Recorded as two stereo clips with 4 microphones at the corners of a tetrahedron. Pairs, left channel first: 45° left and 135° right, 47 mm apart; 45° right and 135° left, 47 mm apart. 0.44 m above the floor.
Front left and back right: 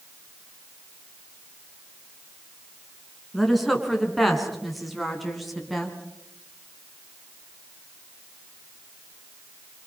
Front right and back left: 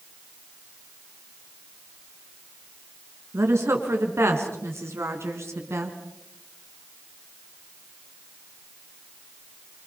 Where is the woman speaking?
135° left, 6.5 m.